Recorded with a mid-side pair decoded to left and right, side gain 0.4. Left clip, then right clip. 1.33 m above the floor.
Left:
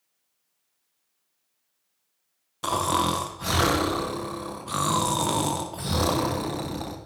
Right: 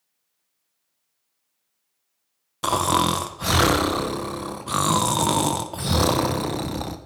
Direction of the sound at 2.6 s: 40° right.